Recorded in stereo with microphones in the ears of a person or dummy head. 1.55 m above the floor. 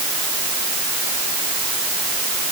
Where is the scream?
I don't hear a scream.